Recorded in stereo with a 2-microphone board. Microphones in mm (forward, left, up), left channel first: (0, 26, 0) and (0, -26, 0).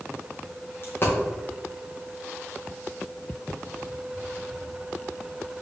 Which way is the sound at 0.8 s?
45° left (ahead or behind).